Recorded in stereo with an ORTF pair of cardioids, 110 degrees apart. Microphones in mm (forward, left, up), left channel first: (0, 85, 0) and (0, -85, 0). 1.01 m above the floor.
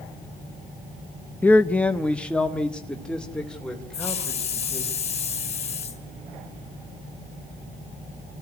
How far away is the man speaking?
About 0.6 m.